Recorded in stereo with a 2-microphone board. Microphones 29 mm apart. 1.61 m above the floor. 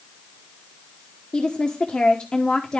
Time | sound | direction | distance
1.3 | a woman speaking | 35° left (ahead or behind) | 1.0 m